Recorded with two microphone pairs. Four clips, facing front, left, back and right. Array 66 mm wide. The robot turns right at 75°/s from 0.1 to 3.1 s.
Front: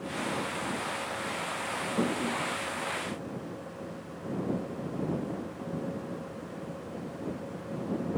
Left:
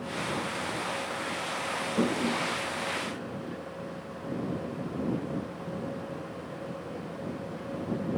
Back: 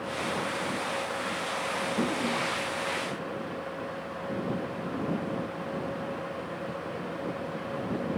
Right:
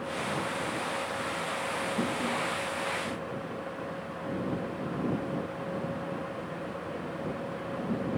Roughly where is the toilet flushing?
Ahead left.